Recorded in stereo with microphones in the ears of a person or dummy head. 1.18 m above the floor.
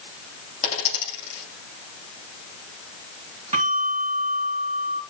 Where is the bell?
35° right (ahead or behind), 3.5 m.